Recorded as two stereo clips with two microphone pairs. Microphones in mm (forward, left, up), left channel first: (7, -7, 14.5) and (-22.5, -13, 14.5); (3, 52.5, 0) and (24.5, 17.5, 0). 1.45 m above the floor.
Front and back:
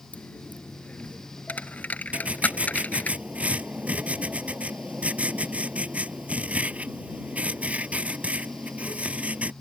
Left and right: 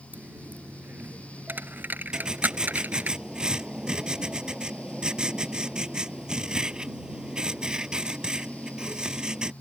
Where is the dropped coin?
20° right.